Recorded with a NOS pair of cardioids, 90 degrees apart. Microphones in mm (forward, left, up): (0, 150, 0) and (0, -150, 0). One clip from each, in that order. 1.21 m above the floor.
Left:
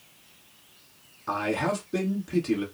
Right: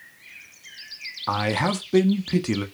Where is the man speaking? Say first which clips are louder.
Right 3 dB; 45° right, 0.8 m.